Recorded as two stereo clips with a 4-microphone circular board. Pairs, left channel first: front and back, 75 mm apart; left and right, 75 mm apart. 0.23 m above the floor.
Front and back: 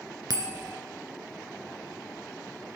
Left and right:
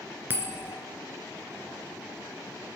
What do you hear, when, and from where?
0.3 s a bell: 150° right, 1.9 m